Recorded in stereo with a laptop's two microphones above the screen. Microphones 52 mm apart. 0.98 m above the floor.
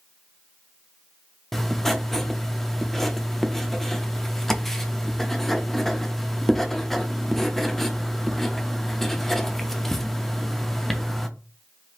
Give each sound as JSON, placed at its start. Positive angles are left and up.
{"t": 1.5, "sound": "writing", "side_deg": 10, "distance_m": 0.6}